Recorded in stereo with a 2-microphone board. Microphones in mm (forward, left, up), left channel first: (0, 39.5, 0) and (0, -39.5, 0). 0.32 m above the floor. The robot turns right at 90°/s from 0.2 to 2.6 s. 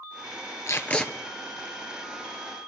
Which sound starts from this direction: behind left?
Tape being pulled, at 0.7 s.